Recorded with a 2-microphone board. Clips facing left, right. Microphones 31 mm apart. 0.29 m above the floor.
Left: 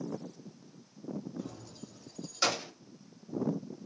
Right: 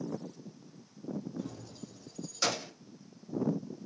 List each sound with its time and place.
1.4 s keys jangling: centre (ahead or behind), 1.0 m; by 2.7 s 10° left (ahead or behind), 0.9 m